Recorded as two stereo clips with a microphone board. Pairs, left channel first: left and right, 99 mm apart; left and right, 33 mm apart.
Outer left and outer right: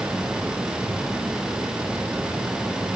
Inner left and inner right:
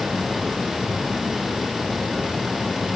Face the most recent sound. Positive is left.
No sound to turn to.